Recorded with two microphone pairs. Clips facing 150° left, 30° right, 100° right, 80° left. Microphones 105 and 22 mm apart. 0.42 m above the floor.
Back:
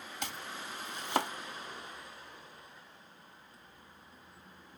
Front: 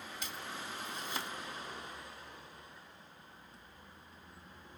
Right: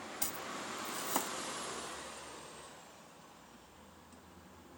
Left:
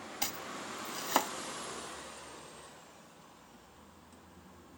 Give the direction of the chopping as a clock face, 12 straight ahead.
8 o'clock.